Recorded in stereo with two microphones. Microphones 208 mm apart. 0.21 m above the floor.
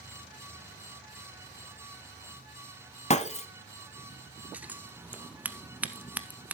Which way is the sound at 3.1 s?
35° left (ahead or behind).